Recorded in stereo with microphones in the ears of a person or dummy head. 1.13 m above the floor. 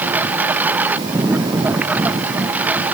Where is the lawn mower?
5° right (ahead or behind).